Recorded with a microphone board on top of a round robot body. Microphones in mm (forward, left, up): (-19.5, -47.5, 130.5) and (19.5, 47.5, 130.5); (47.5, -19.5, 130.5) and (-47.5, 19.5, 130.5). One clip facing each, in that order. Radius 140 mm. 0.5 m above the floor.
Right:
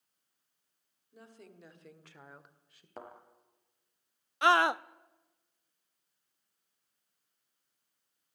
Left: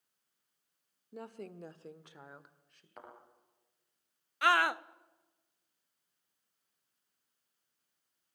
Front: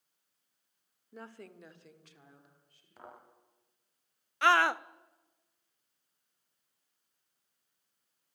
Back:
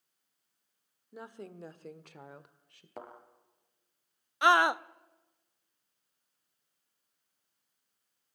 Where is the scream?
150° right, 0.7 m.